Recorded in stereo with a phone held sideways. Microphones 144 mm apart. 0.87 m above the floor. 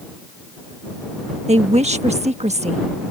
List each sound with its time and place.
1.5 s a woman speaking: 55° right (ahead or behind)